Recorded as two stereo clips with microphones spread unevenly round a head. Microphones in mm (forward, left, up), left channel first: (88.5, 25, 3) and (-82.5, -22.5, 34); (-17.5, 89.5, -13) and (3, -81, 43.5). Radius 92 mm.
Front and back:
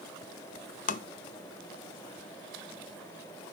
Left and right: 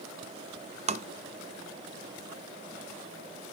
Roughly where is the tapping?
Ahead.